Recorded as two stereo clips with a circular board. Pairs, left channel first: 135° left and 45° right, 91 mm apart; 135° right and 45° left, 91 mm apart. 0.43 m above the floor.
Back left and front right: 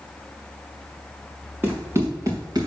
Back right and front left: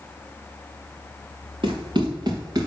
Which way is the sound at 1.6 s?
25° left.